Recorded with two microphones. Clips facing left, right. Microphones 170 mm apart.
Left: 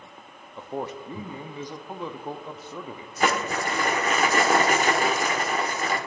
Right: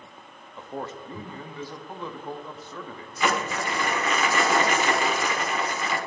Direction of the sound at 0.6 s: 15° left (ahead or behind).